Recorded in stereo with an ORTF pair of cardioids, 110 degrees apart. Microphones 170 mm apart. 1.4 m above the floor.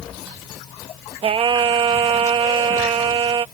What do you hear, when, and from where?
1.2 s singing: 35° right